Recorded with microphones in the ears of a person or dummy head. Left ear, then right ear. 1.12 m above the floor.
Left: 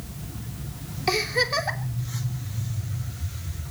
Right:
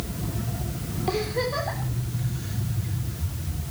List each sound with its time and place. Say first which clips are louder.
1.1 s a giggle: left 4 dB; 75° left (ahead or behind), 3 m